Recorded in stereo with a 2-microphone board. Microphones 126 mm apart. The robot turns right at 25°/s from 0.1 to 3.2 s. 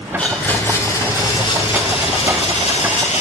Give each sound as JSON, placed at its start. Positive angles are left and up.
{"t": 0.2, "sound": "a blender", "azimuth_deg": 10, "distance_m": 2.5}